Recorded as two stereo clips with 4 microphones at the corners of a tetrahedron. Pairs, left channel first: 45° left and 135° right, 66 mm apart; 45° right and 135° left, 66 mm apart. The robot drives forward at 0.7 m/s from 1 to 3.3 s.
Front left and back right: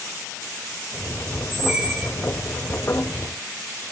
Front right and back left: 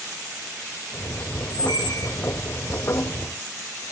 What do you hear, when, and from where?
1.5 s a squeak: 45° right, 1.0 m; by 2.1 s 70° right, 0.8 m